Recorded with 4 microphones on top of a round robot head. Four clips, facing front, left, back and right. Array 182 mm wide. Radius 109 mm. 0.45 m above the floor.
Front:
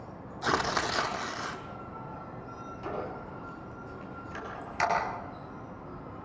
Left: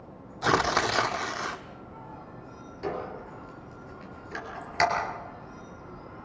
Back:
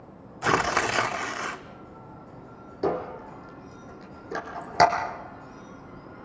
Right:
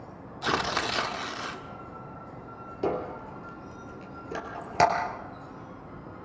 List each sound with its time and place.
0.4 s tearing paper: 140° left, 1.5 m
2.8 s a squeak: 145° right, 4 m